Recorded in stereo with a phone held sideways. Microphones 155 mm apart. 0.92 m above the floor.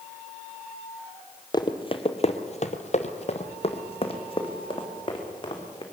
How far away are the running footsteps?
About 1.3 m.